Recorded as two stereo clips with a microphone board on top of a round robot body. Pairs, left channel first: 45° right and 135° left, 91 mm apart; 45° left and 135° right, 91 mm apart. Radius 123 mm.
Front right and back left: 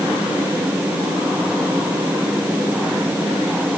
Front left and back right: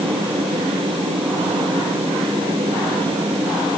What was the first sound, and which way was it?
Only background noise.